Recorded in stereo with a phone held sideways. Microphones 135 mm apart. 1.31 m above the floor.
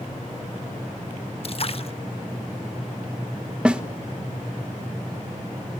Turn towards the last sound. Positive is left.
turn(degrees=-10)  # may be behind; listen again after turning